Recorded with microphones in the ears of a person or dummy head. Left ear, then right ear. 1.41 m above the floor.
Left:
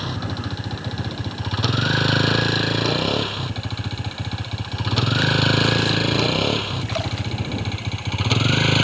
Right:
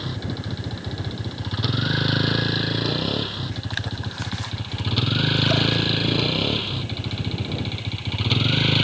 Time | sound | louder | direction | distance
0.0 | a vehicle | left 3 dB | 35° left (ahead or behind) | ?